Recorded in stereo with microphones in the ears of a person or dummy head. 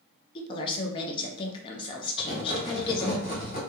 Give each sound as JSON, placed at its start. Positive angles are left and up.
{"t": 0.3, "sound": "a woman speaking", "side_deg": 30, "distance_m": 0.6}
{"t": 2.2, "sound": "writing", "side_deg": 60, "distance_m": 1.7}